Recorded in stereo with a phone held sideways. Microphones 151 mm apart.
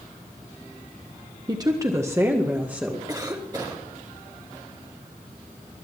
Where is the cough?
25° right (ahead or behind), 3 m.